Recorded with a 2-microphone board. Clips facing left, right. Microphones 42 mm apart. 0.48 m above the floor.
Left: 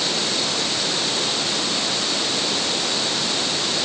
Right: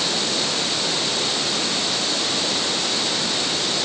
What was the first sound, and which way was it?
Only background noise.